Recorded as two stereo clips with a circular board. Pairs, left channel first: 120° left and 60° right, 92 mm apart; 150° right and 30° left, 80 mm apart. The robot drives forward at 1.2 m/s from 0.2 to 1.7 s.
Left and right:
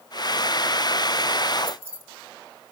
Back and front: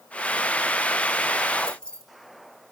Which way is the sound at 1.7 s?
70° right.